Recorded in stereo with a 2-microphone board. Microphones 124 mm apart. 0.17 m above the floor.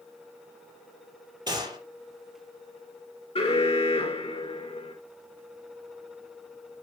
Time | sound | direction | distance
1.5 | a gunshot | 35° right (ahead or behind) | 4.5 m
3.4 | an alarm | 55° left (ahead or behind) | 3 m